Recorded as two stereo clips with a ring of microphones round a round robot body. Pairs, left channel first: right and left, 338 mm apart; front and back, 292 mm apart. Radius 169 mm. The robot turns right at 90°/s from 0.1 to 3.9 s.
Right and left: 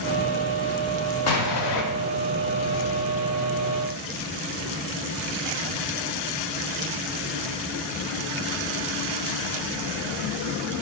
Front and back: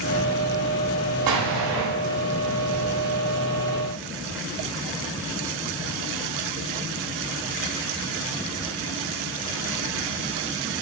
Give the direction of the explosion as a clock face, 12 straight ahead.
5 o'clock.